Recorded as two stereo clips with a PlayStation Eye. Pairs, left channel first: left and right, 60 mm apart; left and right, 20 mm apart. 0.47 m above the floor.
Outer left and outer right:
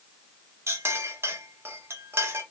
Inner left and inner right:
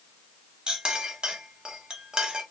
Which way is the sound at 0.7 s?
45° right (ahead or behind).